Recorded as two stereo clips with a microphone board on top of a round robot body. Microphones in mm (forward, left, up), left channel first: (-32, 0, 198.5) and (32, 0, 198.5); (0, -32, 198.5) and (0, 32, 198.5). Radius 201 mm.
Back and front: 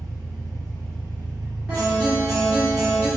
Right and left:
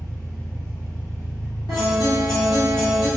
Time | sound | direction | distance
0.0 | an engine running | 20° right | 0.7 m
1.7 | a guitar | 90° right | 1.5 m